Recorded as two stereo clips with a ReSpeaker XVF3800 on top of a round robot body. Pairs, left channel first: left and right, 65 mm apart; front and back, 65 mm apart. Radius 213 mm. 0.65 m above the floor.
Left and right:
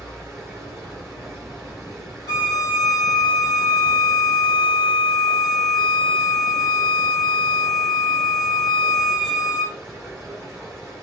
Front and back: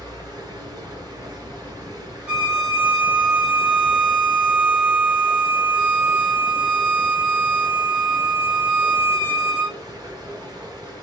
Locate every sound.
0.0 s running water: straight behind, 1.6 m
2.3 s a violin: 110° left, 1.3 m